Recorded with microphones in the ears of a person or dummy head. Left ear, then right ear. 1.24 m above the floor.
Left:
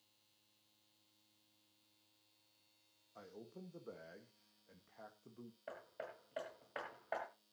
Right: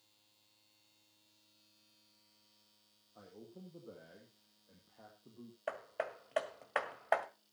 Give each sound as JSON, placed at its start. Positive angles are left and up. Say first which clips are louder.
{"t": 3.1, "sound": "a man speaking", "louder": "even", "side_deg": 65, "distance_m": 1.8}
{"t": 5.7, "sound": "hammering", "louder": "right 10 dB", "side_deg": -35, "distance_m": 1.6}